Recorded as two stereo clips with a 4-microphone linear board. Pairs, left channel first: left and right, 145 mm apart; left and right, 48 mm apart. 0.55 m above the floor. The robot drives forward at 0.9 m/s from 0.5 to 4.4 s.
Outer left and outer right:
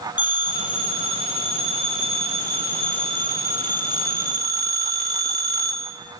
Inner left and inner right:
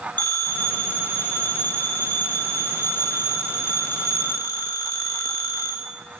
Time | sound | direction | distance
0.2 | a phone ringing | 35° left (ahead or behind) | 3.5 m